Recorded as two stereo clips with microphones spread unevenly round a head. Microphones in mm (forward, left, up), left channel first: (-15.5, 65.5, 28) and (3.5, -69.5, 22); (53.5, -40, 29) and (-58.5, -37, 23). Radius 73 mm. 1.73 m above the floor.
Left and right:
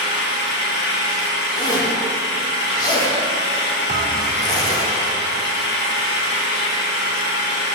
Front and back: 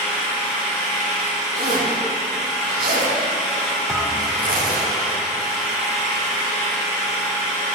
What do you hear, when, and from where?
0.0 s an engine running: 85° left, 1.8 m
1.6 s a zipper: 160° left, 2 m
3.9 s a thud: 100° right, 1.8 m